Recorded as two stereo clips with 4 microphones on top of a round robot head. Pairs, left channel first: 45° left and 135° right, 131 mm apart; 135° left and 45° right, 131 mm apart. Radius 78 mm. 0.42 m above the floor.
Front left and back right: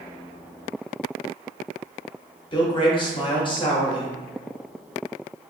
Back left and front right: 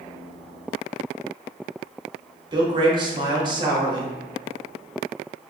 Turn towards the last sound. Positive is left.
turn(degrees=0)